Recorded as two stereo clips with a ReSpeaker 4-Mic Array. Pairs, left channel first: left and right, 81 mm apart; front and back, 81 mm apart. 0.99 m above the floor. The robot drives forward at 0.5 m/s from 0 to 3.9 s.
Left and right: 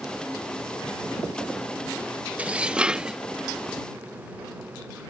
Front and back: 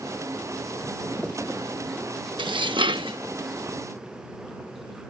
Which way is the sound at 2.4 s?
165° right.